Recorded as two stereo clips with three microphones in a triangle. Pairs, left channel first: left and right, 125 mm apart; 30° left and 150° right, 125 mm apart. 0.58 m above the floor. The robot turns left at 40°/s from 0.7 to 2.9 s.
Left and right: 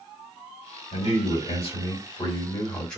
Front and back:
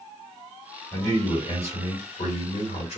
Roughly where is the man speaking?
Left.